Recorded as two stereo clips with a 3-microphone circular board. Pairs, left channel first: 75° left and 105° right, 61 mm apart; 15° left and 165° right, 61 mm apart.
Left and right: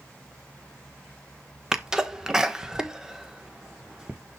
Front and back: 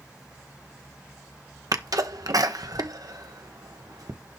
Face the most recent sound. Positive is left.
turn(degrees=175)